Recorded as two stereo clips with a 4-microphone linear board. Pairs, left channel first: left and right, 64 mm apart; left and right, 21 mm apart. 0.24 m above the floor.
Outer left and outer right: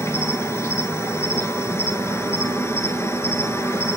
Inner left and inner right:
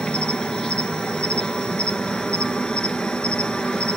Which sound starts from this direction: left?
An insect, at 0.0 s.